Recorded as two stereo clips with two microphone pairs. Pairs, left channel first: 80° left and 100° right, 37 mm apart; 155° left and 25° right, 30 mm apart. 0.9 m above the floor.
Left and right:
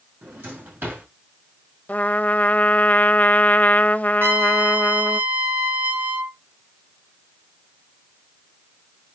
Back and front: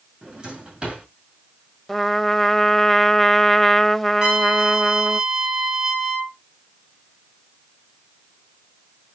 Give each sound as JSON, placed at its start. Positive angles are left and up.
{"t": 0.2, "sound": "a drawer", "azimuth_deg": -85, "distance_m": 6.0}
{"t": 1.9, "sound": "a trumpet", "azimuth_deg": 75, "distance_m": 0.8}
{"t": 4.2, "sound": "a trumpet", "azimuth_deg": -90, "distance_m": 4.0}